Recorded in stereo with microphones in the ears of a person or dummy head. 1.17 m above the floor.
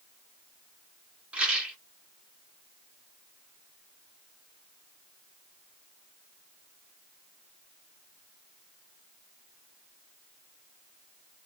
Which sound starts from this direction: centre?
A rattle, at 1.3 s.